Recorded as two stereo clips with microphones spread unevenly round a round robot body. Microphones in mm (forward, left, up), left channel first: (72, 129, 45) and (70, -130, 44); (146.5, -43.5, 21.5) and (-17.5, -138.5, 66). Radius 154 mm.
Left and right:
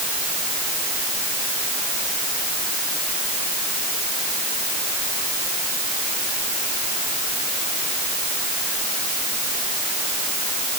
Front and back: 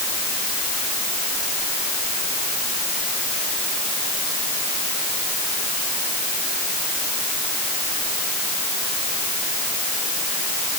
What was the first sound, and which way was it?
Only background noise.